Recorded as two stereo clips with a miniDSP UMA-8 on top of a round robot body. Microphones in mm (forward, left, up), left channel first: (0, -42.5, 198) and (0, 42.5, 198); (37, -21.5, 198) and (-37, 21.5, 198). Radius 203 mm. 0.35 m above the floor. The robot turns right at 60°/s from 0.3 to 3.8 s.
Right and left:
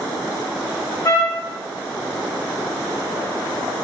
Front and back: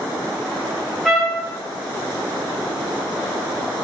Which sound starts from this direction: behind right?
A trumpet, at 1.1 s.